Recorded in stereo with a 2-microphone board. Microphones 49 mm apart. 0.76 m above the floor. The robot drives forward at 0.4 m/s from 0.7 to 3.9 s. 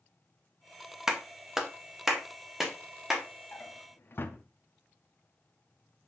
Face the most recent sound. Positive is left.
turn(degrees=50)  # may be behind; listen again after turning